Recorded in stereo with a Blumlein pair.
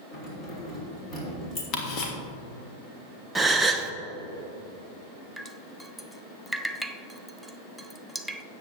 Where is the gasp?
5° right, 0.8 m.